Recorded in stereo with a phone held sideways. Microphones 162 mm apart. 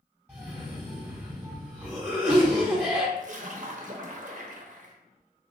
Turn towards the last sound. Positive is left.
turn(degrees=-50)  # may be behind; listen again after turning